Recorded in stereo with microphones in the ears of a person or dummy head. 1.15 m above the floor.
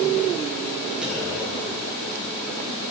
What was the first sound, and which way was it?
A clunk, 5° right (ahead or behind).